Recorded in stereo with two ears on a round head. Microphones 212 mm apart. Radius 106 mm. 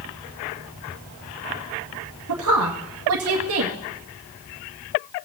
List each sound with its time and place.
2.3 s a woman speaking: 65° right (ahead or behind), 2 m